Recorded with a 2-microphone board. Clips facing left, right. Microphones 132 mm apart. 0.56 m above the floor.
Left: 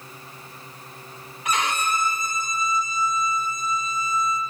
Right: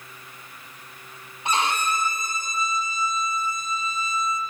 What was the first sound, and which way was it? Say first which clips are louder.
A violin: right 1 dB; 30° right (ahead or behind).